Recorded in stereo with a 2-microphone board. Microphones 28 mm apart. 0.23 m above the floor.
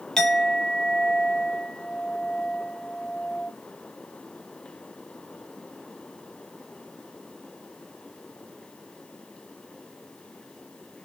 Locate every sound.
0.2 s a clink: 10° left (ahead or behind), 0.9 m